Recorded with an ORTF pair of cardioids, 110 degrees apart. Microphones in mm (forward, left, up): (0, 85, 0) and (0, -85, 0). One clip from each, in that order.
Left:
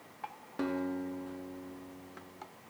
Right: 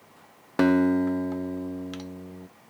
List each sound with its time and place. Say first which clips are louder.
0.6 s a guitar: right 14 dB; 60° right, 0.5 m